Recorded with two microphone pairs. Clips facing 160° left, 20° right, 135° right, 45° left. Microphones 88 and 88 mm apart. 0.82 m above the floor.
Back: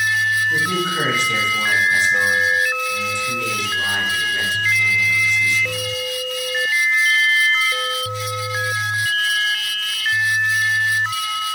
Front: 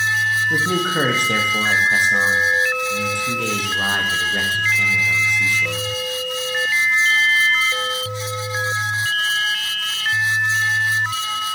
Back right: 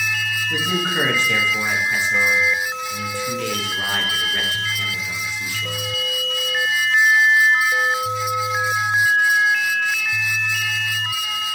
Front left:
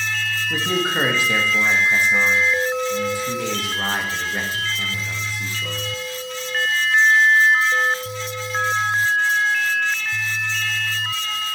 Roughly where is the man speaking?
Ahead right.